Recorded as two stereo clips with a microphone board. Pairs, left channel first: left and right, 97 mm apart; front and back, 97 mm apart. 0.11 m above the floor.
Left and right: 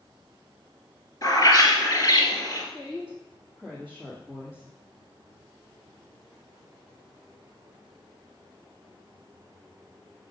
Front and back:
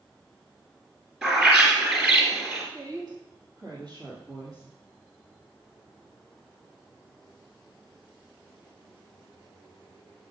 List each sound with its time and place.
1.2 s a bird: 100° left, 2 m
2.7 s a woman speaking: 170° right, 2 m